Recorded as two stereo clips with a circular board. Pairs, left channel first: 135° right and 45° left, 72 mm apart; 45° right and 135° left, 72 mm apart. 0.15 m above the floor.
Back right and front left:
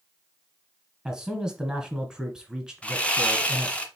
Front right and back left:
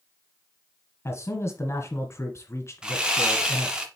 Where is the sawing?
170° right, 1.2 m.